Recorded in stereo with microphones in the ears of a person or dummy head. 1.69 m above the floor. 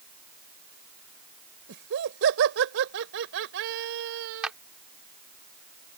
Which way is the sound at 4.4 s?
5° right (ahead or behind).